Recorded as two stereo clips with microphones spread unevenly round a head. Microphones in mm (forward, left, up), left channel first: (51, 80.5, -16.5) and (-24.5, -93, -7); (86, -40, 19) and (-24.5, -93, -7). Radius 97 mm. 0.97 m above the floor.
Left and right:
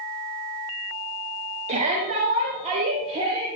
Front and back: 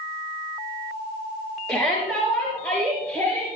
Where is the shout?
55° right, 9 m; by 3.5 s 50° right, 8 m.